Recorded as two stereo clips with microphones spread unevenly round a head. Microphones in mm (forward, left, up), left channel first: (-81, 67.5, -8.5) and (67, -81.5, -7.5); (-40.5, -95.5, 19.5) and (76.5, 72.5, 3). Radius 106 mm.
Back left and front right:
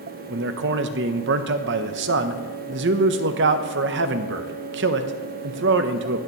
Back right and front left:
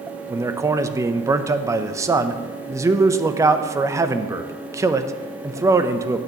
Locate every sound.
0.3 s a man speaking: 15° right, 0.7 m